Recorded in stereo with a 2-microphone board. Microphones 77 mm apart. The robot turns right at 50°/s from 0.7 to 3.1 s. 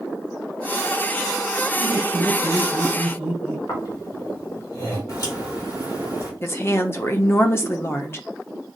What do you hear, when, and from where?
1.8 s laughter: 90° left, 3 m; by 3.6 s 155° left, 3 m
3.7 s snoring: 45° left (ahead or behind), 2.5 m
5.1 s a crack: 45° left (ahead or behind), 3.5 m
6.4 s a woman speaking: 35° left (ahead or behind), 0.7 m